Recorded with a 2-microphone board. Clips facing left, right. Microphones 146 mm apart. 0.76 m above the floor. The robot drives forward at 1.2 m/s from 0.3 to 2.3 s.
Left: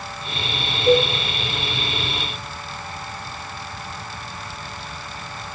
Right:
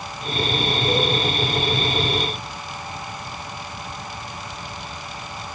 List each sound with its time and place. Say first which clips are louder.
0.9 s a cowbell: left 8 dB; 80° left, 5.5 m